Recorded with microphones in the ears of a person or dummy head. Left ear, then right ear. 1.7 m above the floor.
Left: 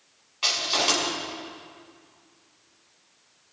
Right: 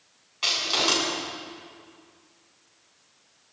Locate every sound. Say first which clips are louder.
0.4 s crushing: even; 5° left (ahead or behind), 8.5 m